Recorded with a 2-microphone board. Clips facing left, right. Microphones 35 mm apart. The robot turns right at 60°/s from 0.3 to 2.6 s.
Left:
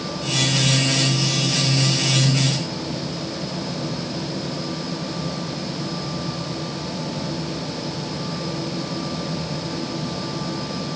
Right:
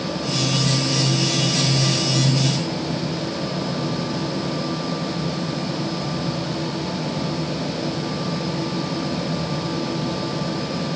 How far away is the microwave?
No microwave in this recording.